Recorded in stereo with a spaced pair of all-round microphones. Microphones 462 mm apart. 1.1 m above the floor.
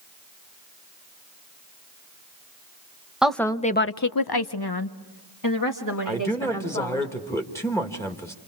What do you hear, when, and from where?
3.2 s a woman speaking: centre (ahead or behind), 1.1 m; by 7.0 s 35° left (ahead or behind), 3.5 m
6.0 s a man speaking: 5° left (ahead or behind), 1.9 m